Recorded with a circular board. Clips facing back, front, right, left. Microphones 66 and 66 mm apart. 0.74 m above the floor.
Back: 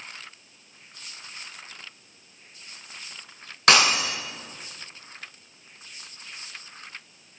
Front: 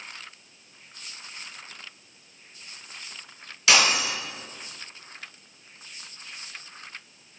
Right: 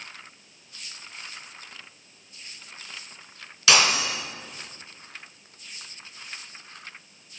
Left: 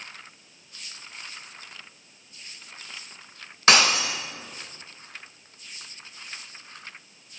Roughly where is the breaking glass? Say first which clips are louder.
Back 2 dB, left 2 dB; behind left.